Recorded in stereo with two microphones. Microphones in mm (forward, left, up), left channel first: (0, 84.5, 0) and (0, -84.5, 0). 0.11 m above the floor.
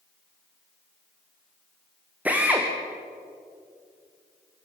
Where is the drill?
10° right (ahead or behind), 4.5 m.